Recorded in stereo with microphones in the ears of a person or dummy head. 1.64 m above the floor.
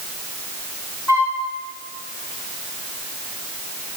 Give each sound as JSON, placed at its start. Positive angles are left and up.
{"t": 1.1, "sound": "a flute", "side_deg": 10, "distance_m": 1.7}